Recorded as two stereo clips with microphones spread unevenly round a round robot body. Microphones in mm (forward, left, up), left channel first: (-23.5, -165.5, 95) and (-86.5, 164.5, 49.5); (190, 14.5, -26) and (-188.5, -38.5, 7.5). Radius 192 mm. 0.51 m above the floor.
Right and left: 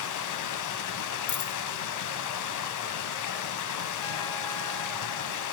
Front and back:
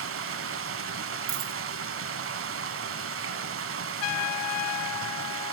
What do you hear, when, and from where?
0.0 s running water: 115° right, 1.1 m
1.3 s a dropped coin: 140° right, 1.8 m
4.0 s a trumpet: 5° right, 0.6 m